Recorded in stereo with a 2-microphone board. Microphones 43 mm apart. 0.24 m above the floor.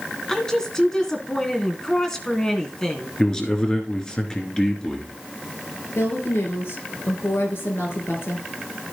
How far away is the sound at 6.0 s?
About 4.5 m.